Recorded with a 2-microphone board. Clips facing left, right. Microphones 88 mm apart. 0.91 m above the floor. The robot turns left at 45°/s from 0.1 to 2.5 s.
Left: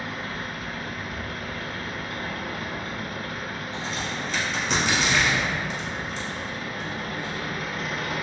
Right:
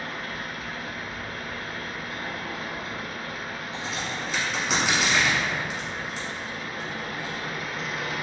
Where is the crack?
10° right (ahead or behind), 1.1 m.